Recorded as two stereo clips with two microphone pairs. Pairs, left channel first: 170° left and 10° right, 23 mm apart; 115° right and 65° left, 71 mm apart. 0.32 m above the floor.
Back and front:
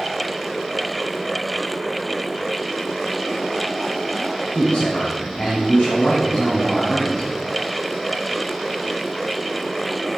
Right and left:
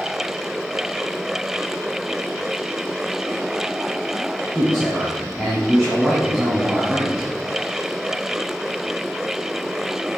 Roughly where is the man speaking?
Behind left.